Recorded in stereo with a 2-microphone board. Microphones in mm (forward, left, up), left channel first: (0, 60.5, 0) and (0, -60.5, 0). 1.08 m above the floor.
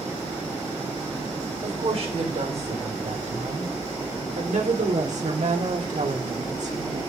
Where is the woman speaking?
55° right (ahead or behind), 4.5 m; by 7.1 s 70° right (ahead or behind), 3 m.